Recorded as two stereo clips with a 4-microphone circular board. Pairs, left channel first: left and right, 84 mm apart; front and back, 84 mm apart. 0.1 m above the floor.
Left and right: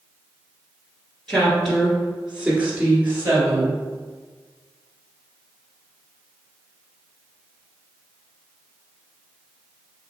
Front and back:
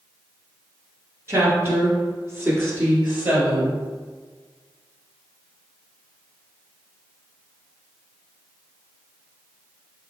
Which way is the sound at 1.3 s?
165° left.